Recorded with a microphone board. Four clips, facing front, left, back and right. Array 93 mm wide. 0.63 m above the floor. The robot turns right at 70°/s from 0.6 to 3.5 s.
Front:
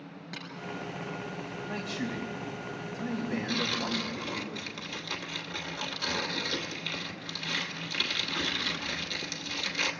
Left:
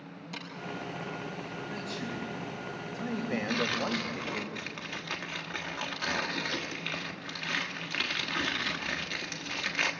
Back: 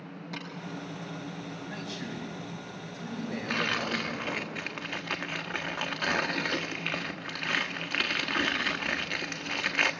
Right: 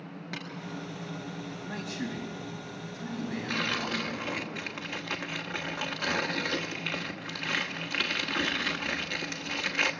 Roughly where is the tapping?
Right.